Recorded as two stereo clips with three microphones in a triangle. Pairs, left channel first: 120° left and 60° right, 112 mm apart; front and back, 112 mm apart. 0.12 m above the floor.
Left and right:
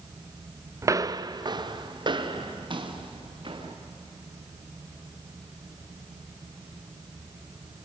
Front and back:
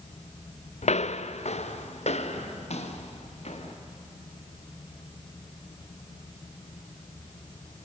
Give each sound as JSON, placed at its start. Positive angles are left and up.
{"t": 0.8, "sound": "footsteps", "azimuth_deg": 5, "distance_m": 0.5}